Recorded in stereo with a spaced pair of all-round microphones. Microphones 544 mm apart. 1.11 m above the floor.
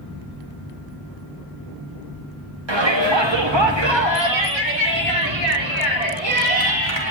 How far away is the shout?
About 1.6 m.